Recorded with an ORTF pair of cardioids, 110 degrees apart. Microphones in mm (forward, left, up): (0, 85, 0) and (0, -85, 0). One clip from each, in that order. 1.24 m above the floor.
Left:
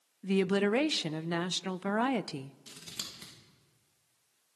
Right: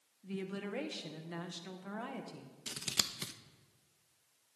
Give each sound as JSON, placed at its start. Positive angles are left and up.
{"t": 0.2, "sound": "a woman speaking", "azimuth_deg": 65, "distance_m": 0.6}
{"t": 2.7, "sound": "scissors", "azimuth_deg": -50, "distance_m": 1.3}